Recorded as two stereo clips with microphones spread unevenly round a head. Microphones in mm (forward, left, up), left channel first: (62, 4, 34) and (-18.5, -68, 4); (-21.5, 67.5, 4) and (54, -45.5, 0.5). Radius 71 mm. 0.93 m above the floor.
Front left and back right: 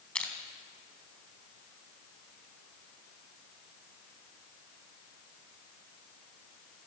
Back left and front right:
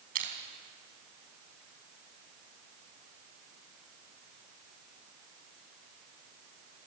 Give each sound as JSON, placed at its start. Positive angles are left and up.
{"t": 0.1, "sound": "crushing", "azimuth_deg": -35, "distance_m": 3.5}